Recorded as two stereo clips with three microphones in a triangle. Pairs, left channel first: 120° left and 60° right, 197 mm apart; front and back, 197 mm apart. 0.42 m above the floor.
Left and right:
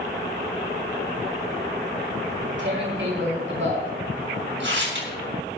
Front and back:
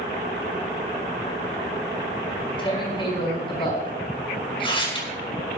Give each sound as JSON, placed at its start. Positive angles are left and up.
{"t": 2.3, "sound": "tearing paper", "azimuth_deg": -65, "distance_m": 5.0}